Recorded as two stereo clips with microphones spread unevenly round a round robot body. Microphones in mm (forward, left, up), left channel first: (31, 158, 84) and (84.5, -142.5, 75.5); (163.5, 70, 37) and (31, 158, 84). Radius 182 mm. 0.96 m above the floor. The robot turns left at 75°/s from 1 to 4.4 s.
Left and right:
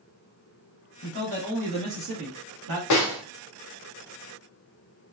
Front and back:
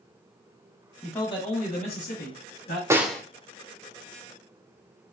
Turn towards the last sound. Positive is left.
turn(degrees=-45)